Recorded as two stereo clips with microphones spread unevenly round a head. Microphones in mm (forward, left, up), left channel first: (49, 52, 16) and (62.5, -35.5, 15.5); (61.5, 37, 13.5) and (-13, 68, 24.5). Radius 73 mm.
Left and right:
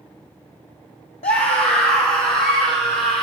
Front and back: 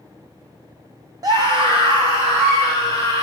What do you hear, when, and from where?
1.2 s a scream: 115° left, 1.0 m; by 3.2 s 155° left, 3.5 m